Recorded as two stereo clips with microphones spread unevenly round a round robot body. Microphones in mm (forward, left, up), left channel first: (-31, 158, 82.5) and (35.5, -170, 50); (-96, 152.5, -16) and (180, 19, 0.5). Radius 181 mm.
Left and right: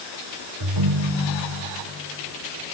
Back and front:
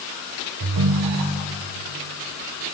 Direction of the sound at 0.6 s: 60° right.